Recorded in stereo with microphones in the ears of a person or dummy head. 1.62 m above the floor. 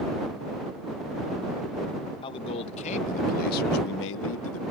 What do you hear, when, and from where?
2.2 s a man speaking: 30° left (ahead or behind); by 4.6 s 75° left (ahead or behind)